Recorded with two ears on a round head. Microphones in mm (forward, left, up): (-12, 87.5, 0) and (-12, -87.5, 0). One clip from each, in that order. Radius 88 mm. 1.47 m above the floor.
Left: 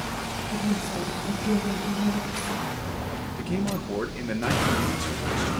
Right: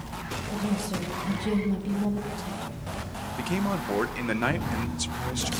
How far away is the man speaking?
About 1.2 m.